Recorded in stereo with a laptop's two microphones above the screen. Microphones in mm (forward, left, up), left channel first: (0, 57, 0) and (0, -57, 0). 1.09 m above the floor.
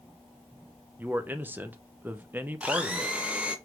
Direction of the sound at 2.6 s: 10° right (ahead or behind).